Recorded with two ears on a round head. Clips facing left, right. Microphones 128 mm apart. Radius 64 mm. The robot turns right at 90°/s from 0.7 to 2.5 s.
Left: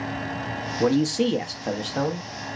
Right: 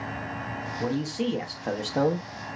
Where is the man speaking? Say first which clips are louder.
Left 8 dB; 90° left, 0.6 m; by 2.3 s 135° right, 0.6 m.